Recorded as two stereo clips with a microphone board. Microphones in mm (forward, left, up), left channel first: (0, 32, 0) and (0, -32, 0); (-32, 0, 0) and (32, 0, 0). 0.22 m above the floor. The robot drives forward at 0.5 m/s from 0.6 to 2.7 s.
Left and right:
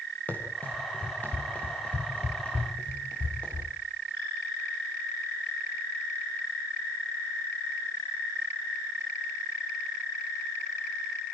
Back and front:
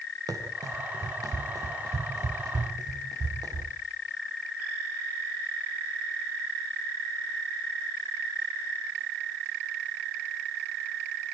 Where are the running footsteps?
25° left, 5 m; by 3.7 s 15° left, 7 m.